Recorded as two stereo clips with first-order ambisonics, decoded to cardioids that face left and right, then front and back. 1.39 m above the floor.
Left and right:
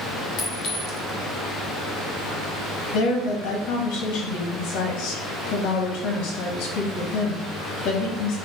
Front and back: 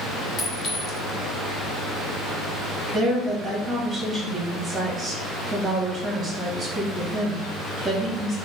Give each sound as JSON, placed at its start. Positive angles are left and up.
{"t": 0.4, "sound": "a clink", "azimuth_deg": 60, "distance_m": 0.9}
{"t": 2.9, "sound": "a woman speaking", "azimuth_deg": 95, "distance_m": 1.2}